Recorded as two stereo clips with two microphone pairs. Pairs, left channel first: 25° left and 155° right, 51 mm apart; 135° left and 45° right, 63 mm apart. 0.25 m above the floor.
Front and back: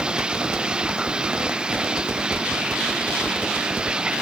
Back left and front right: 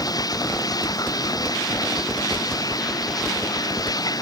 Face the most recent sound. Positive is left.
turn(degrees=135)